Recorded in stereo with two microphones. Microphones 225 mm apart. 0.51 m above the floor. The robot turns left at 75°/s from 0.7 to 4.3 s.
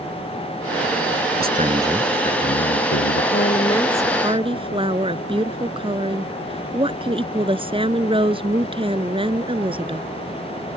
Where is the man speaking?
135° right; by 3.2 s 90° left.